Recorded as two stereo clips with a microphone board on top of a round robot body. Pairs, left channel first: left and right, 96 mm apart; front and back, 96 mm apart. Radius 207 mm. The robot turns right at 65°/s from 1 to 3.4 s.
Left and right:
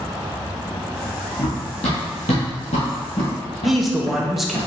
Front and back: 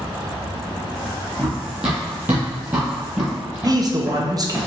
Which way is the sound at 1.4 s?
80° left.